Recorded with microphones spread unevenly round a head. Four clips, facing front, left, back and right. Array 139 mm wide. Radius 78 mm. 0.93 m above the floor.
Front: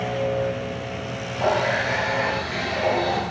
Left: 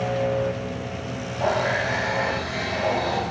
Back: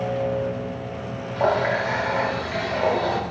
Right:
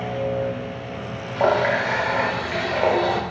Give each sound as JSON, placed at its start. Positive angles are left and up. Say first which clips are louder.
{"t": 1.4, "sound": "a running tap", "louder": "right 4 dB, back 1 dB", "azimuth_deg": -95, "distance_m": 0.7}